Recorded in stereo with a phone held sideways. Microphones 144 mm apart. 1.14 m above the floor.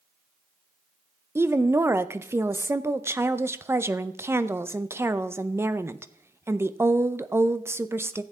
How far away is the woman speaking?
About 0.5 m.